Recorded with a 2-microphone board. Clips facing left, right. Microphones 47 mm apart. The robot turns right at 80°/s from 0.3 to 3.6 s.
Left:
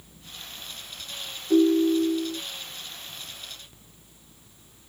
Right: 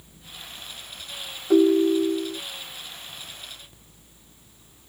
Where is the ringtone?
75° right, 0.6 m; by 2.4 s 5° right, 0.6 m.